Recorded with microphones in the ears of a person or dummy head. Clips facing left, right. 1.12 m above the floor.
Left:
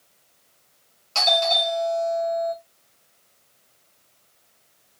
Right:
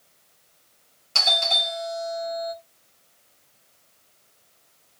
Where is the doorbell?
20° right (ahead or behind), 0.9 m.